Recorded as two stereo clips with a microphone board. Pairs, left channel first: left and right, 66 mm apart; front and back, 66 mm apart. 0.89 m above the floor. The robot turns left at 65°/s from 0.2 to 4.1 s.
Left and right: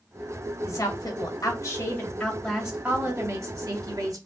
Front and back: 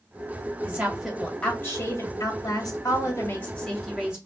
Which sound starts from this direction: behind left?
A woman speaking, at 0.6 s.